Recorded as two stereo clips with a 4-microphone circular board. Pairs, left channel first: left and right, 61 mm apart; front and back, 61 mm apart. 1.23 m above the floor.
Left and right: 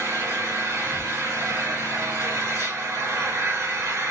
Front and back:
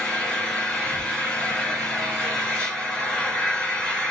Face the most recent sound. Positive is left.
turn(degrees=-80)